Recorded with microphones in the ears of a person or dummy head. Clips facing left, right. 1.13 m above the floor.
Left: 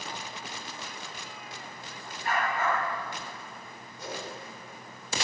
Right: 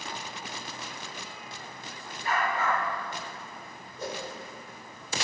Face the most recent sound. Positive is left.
turn(degrees=-55)  # may be behind; listen again after turning